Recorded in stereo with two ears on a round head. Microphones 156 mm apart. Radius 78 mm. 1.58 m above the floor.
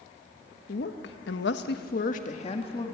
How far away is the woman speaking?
About 1.9 m.